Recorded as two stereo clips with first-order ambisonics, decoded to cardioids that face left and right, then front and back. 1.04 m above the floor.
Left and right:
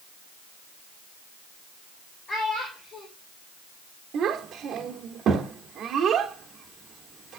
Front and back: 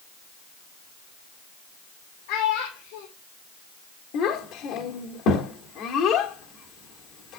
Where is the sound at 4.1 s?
35° right, 1.4 m.